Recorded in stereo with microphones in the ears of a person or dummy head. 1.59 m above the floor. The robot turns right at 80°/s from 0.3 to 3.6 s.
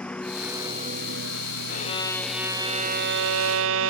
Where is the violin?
125° left; by 3.9 s 80° right.